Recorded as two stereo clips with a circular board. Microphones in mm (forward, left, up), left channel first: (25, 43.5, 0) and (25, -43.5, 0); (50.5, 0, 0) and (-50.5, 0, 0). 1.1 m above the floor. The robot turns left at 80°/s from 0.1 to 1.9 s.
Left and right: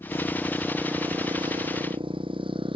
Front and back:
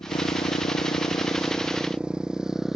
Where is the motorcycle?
40° left; by 2.8 s 90° right.